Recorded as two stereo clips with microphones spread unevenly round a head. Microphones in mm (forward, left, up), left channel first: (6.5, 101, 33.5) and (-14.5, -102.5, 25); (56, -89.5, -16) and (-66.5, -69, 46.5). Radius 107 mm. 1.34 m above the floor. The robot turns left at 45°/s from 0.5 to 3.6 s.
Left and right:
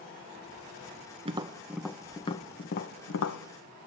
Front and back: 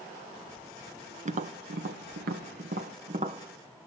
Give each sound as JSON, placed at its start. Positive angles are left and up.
{"t": 1.2, "sound": "tapping", "azimuth_deg": -160, "distance_m": 1.0}